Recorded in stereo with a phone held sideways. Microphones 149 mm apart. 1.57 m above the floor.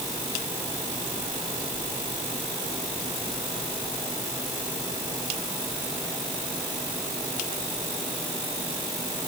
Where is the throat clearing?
I don't hear throat clearing.